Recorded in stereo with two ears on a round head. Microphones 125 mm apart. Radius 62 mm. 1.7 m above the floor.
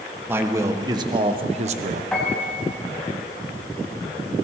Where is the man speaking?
15° right (ahead or behind), 1.7 m; by 2.0 s 60° right (ahead or behind), 1.3 m.